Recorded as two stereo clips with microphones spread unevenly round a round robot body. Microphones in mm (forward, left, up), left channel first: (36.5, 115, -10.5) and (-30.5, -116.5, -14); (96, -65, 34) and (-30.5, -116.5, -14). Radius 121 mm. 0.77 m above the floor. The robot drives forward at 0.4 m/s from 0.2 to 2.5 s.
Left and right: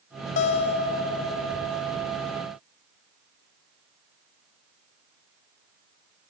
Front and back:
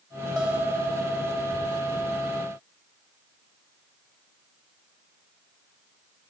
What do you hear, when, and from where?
0.4 s a guitar: 90° left; by 1.8 s 135° left